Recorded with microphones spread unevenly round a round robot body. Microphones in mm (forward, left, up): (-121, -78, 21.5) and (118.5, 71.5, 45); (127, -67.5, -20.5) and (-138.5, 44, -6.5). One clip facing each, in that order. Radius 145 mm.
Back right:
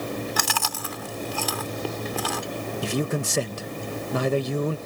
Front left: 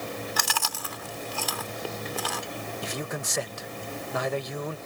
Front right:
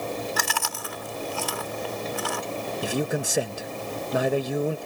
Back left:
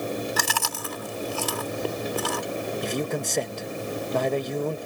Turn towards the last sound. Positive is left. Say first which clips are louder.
# back right 10 dB, front right 5 dB
turn(degrees=-105)